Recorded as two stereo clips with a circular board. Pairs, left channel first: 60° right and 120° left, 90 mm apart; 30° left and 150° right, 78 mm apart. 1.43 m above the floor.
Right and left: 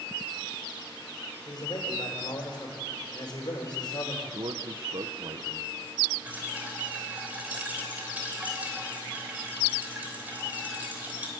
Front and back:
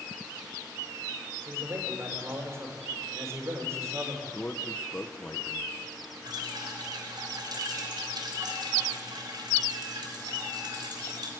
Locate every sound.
1.4 s a man speaking: 95° right, 4.5 m
4.3 s a man speaking: 100° left, 1.0 m
6.2 s dripping: 170° right, 3 m